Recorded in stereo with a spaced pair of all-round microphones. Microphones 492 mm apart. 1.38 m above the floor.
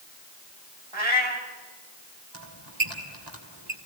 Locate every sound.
0.9 s a cat meowing: 70° right (ahead or behind), 2.5 m
2.3 s a squeak: 55° right (ahead or behind), 3 m